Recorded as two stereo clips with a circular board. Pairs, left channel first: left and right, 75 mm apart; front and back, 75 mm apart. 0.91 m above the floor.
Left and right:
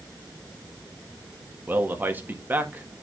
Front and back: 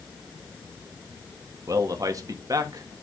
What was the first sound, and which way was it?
A man speaking, 150° right.